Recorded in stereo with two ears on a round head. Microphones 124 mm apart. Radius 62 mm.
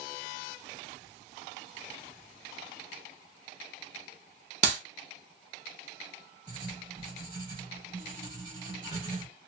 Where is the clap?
55° right (ahead or behind), 1.0 m.